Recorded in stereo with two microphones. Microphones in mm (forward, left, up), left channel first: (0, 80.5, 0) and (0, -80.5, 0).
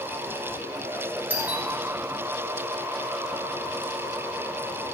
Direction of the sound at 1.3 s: 10° right (ahead or behind).